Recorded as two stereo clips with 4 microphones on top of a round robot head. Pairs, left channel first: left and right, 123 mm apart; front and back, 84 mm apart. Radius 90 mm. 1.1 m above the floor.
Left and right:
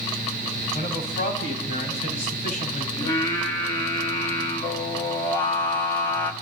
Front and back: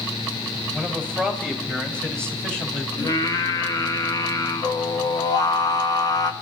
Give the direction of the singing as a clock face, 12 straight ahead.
11 o'clock.